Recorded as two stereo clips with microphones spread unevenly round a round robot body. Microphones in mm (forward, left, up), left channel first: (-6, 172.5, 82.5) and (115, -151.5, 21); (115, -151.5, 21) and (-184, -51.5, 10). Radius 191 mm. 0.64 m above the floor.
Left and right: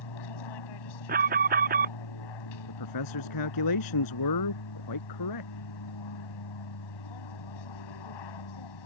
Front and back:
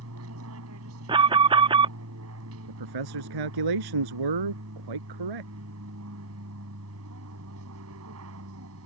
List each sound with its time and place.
0.0 s an aircraft: 105° left
1.1 s an alarm: 125° right
2.7 s a man speaking: 150° left